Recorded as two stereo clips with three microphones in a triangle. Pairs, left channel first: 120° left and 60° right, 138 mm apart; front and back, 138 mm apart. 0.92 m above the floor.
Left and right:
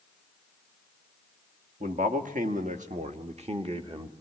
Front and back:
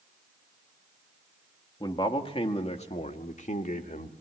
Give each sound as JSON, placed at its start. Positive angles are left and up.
{"t": 1.8, "sound": "a man speaking", "azimuth_deg": -55, "distance_m": 1.6}